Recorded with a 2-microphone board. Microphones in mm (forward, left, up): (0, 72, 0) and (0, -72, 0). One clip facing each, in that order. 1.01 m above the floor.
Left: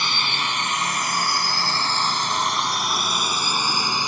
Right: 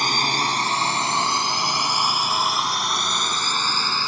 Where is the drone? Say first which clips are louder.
Right 4 dB; 45° right (ahead or behind); by 4.1 s 20° left (ahead or behind).